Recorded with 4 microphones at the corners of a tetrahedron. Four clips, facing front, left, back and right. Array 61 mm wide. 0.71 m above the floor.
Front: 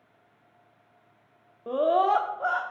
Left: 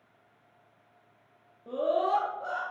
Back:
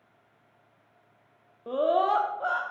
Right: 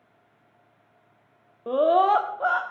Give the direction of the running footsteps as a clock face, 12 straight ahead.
No running footsteps in this recording.